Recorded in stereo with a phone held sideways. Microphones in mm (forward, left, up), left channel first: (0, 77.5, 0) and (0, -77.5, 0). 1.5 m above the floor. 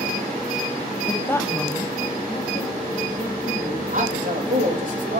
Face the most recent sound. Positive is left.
turn(degrees=-60)  # may be behind; listen again after turning